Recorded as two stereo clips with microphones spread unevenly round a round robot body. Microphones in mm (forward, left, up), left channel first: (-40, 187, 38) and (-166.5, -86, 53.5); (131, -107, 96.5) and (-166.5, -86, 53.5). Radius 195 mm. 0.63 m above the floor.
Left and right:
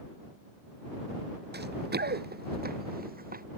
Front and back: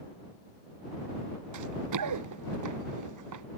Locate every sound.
1.5 s running footsteps: 170° right; by 3.4 s 175° right